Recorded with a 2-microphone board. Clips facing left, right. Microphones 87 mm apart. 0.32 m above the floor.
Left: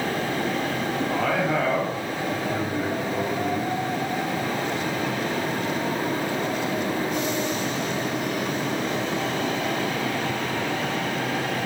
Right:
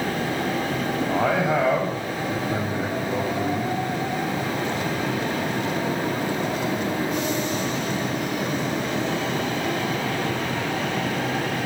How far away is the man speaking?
About 2.5 m.